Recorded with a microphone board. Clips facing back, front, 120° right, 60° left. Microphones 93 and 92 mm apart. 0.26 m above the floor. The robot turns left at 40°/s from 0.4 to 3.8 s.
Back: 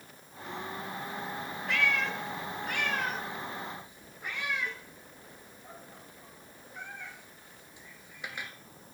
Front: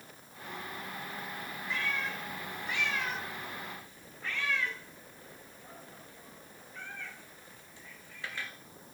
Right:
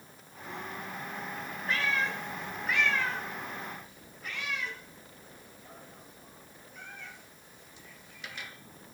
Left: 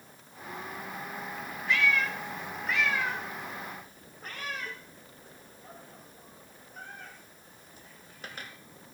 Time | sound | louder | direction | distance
1.7 | a cat meowing | back 6 dB, left 3 dB | 170° right | 1.7 m